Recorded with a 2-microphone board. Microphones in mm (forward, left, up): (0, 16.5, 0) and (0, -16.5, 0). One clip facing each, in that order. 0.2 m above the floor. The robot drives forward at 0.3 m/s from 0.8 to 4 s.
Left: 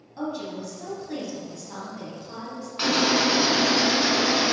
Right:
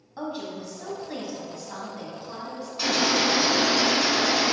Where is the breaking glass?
No breaking glass in this recording.